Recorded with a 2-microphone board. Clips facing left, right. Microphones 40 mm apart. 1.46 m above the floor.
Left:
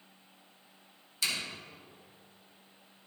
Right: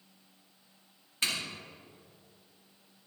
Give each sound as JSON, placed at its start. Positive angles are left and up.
{"t": 1.2, "sound": "a zipper", "side_deg": -40, "distance_m": 2.5}